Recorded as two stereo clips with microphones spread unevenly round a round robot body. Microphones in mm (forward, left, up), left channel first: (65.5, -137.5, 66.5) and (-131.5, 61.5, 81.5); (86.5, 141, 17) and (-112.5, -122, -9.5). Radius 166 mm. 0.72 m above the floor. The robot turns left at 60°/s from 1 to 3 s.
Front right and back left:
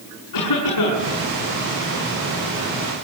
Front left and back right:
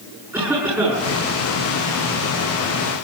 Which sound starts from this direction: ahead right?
A cough, at 0.3 s.